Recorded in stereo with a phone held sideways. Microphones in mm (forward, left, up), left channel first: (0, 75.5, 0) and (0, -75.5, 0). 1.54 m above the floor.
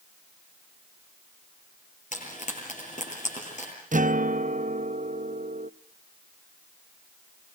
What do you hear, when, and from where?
2.1 s frying: 60° left (ahead or behind), 9.5 m
3.9 s a guitar: 60° right (ahead or behind), 0.6 m